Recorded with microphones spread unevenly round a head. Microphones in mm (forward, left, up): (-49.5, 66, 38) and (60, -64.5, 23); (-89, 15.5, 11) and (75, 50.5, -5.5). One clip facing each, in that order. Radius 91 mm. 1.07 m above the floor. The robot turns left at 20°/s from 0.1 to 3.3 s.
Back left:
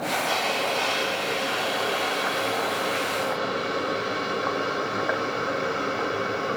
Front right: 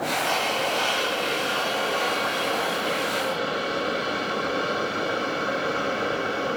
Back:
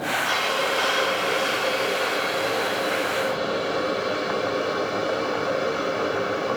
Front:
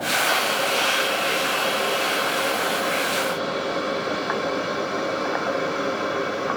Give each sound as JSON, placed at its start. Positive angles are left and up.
{"t": 0.2, "sound": "a hiss", "azimuth_deg": 85, "distance_m": 5.0}